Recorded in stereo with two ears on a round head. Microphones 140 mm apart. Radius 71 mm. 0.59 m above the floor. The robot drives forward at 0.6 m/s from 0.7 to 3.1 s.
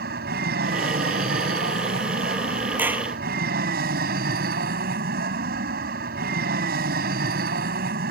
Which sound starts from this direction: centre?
A clap, at 2.8 s.